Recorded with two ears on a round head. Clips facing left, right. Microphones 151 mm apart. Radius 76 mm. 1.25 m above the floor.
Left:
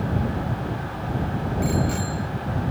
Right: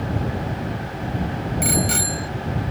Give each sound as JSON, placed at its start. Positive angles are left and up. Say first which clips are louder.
{"t": 1.6, "sound": "a bicycle bell", "louder": "even", "side_deg": -85}